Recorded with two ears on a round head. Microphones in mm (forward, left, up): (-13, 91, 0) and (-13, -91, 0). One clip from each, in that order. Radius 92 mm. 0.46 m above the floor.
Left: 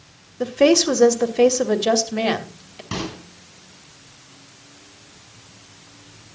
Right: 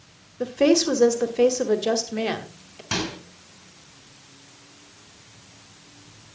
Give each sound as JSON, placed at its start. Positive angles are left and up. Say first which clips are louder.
{"t": 0.4, "sound": "a woman speaking", "louder": "left 4 dB", "side_deg": 10, "distance_m": 1.1}
{"t": 2.9, "sound": "a microwave", "louder": "right 2 dB", "side_deg": -65, "distance_m": 5.5}